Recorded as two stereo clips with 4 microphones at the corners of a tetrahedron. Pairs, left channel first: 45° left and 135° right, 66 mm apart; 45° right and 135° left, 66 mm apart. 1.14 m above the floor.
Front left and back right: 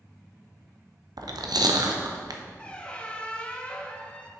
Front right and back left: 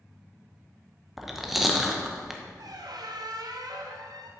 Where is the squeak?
120° left, 0.5 m.